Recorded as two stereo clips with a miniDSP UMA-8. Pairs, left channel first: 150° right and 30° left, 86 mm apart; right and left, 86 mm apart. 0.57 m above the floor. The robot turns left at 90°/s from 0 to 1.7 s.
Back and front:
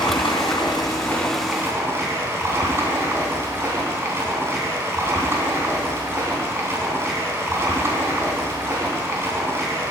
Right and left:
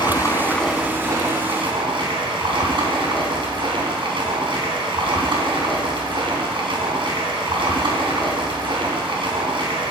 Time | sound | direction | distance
0.0 | running water | 115° right | 3 m